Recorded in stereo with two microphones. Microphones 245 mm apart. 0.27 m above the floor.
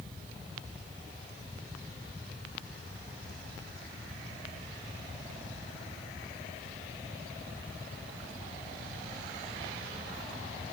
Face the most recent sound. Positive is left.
No sound to turn to.